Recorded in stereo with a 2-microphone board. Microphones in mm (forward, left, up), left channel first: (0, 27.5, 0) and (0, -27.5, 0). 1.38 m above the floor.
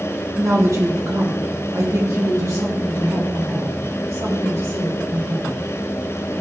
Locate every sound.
0.4 s a woman speaking: 65° right (ahead or behind), 1.7 m; by 5.6 s 80° right, 4.5 m